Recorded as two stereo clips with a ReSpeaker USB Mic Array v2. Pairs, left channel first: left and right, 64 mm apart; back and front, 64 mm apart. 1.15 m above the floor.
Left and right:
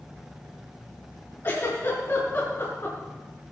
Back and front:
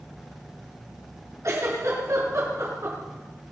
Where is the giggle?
35° left, 6 m.